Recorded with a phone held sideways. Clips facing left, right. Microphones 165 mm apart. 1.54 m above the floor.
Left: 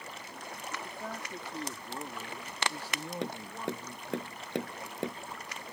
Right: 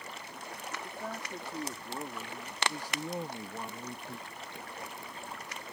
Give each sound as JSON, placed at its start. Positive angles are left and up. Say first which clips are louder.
{"t": 0.8, "sound": "a man speaking", "louder": "right 1 dB", "side_deg": -5}
{"t": 3.2, "sound": "tapping", "louder": "left 4 dB", "side_deg": 80}